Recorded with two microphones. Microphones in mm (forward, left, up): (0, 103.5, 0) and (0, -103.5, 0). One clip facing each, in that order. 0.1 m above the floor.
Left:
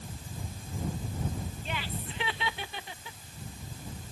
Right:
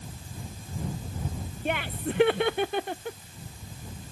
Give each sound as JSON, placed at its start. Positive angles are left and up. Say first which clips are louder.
{"t": 1.6, "sound": "laughter", "louder": "right 13 dB", "side_deg": -60}